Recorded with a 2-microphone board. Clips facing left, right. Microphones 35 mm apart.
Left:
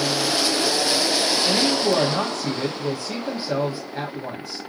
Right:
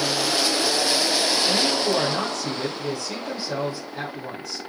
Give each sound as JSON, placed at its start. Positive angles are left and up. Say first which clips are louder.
{"t": 1.4, "sound": "a woman speaking", "louder": "left 2 dB", "side_deg": 30, "distance_m": 2.0}